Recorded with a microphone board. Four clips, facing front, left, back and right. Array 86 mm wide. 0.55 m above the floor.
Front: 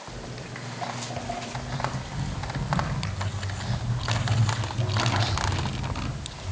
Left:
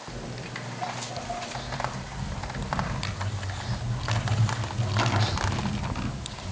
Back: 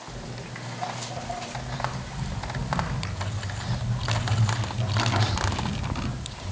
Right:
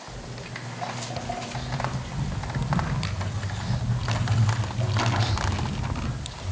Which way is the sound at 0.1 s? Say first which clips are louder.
Left 3 dB, even; 85° left.